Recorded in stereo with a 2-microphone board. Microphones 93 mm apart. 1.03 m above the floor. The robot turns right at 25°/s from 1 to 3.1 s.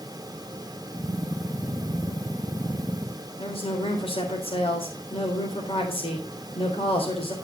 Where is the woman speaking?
85° left, 3 m.